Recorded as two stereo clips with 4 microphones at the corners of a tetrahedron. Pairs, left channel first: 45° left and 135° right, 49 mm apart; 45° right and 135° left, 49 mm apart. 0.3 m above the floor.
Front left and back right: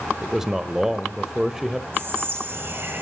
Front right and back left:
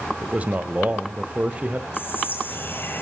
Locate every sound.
0.2 s a man speaking: 150° left, 1.2 m
1.9 s whispering: 90° right, 7.5 m